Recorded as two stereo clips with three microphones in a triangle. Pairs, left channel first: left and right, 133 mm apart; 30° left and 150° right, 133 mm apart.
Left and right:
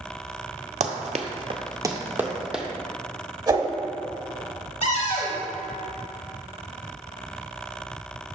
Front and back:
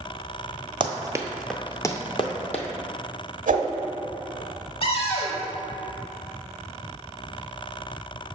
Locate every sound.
0.8 s running footsteps: 105° right, 0.7 m; by 2.6 s 5° right, 1.0 m
3.5 s a whoosh: 150° right, 0.6 m
4.8 s a cupboard door: 70° left, 0.8 m